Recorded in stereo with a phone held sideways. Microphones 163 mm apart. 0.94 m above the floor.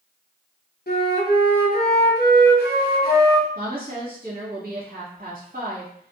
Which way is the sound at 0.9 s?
75° left (ahead or behind).